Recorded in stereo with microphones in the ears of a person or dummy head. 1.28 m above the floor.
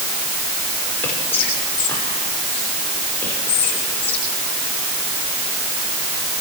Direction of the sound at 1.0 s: 15° left (ahead or behind).